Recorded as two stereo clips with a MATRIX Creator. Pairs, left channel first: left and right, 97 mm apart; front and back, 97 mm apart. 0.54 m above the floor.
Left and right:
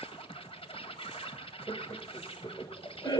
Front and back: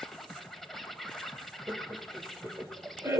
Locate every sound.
0.0 s an insect: 85° left, 1.7 m
1.7 s laughter: 120° left, 2.5 m